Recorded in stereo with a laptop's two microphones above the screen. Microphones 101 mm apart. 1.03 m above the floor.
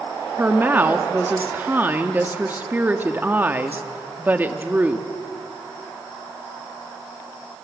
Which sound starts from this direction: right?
A woman speaking, at 0.4 s.